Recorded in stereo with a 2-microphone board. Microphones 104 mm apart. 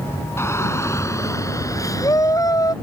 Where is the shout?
25° left (ahead or behind); by 2.7 s 35° left (ahead or behind).